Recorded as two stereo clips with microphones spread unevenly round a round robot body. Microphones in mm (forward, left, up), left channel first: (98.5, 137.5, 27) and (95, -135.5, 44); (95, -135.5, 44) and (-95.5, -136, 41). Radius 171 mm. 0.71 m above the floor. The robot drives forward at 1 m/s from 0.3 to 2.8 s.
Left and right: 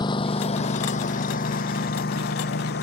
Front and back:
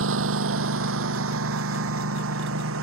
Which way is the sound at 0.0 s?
170° left.